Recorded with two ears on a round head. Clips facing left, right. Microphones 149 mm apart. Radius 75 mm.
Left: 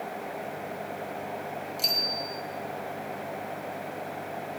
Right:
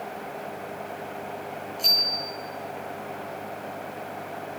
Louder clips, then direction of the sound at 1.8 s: Even; 85° left.